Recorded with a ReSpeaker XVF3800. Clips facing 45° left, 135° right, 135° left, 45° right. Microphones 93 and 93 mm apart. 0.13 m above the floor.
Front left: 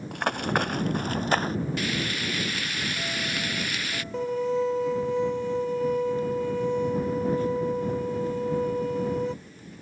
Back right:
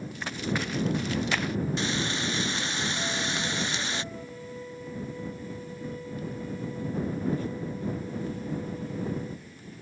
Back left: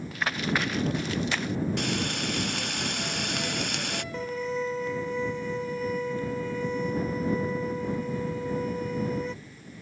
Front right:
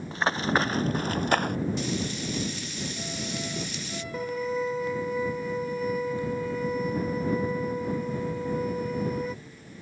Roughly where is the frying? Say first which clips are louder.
Even, back left 1 dB; behind.